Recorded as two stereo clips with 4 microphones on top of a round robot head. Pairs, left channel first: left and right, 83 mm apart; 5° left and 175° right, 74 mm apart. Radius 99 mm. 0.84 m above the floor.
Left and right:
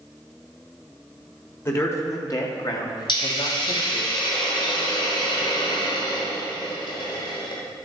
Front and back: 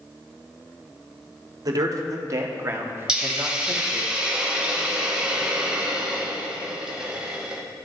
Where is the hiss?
110° left, 2 m.